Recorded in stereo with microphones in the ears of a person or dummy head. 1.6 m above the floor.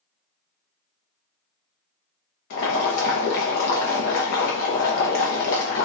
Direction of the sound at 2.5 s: 60° left (ahead or behind).